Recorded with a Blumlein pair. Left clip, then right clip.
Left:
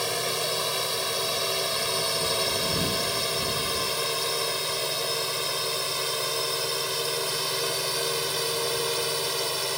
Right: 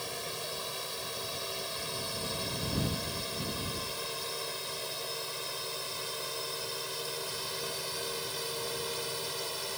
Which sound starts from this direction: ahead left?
A drone, at 0.0 s.